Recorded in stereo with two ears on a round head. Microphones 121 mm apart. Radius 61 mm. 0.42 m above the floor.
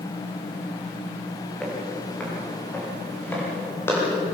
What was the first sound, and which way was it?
Footsteps, 5° left (ahead or behind).